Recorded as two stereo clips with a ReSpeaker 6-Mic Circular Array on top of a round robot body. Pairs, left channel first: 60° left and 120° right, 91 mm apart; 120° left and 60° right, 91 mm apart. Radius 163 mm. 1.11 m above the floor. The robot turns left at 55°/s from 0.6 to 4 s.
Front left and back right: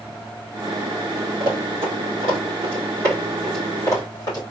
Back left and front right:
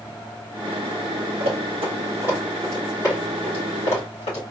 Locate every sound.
1.4 s running footsteps: 65° right, 2 m; by 4.4 s 115° left, 3 m